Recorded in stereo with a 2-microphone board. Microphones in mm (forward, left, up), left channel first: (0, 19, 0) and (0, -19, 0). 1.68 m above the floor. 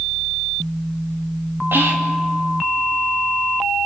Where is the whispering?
75° right (ahead or behind), 3 m.